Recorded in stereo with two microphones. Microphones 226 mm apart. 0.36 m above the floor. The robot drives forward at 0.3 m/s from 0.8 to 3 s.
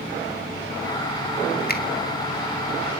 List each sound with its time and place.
1.7 s a finger snap: 40° left (ahead or behind), 1.9 m